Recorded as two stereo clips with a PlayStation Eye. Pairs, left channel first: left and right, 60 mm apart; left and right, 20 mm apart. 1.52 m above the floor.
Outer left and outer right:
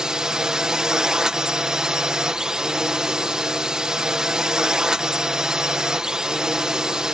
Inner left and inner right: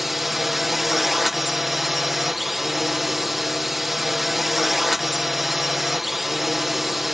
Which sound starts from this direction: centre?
A drone, at 0.0 s.